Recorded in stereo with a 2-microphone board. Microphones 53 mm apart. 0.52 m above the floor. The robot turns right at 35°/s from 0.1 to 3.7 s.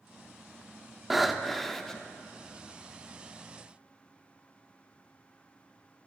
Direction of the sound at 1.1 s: 5° right (ahead or behind).